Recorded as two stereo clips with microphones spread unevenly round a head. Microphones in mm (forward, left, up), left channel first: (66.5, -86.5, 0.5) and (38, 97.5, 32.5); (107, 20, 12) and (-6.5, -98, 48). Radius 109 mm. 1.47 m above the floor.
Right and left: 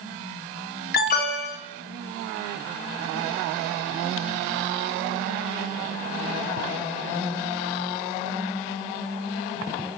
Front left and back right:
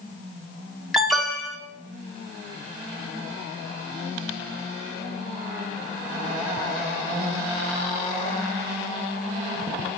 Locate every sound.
0.9 s an alarm: 45° right, 2.5 m